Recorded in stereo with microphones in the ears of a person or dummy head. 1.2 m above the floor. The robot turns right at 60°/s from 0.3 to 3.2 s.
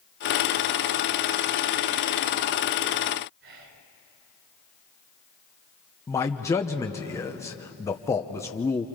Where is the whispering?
70° right (ahead or behind), 4 m.